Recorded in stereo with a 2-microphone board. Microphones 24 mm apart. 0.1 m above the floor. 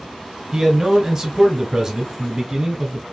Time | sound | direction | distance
0.5 | a man speaking | 25° right (ahead or behind) | 1.3 m